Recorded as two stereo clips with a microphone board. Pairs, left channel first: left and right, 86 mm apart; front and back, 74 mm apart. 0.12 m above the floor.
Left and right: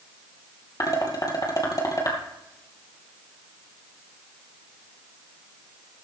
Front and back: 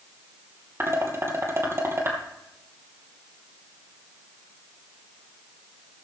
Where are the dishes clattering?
130° left, 2.5 m.